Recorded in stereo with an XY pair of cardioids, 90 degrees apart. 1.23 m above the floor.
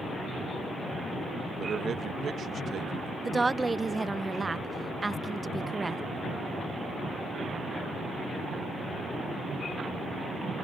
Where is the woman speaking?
25° right.